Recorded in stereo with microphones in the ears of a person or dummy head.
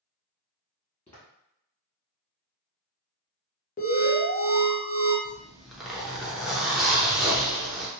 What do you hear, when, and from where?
1.1 s footsteps: 15° left (ahead or behind), 1.5 m
3.8 s an alarm: 40° left (ahead or behind), 0.7 m
5.2 s a zipper: centre (ahead or behind), 0.6 m